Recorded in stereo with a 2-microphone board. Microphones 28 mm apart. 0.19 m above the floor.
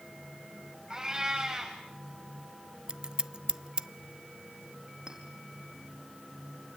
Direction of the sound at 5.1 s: 25° right (ahead or behind).